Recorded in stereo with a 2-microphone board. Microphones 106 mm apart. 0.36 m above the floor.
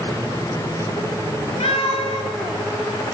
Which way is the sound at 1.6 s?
75° left (ahead or behind).